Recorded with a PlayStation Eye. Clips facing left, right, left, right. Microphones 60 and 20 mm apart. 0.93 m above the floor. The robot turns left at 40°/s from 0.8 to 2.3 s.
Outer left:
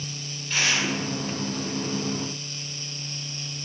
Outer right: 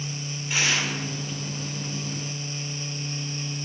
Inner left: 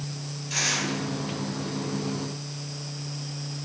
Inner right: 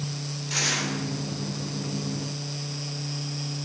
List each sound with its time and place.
0.5 s tearing paper: 10° right (ahead or behind), 3 m; by 0.9 s 15° right (ahead or behind), 3 m